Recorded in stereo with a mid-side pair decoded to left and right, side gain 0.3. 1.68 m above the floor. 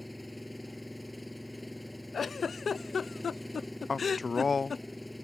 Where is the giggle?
55° left.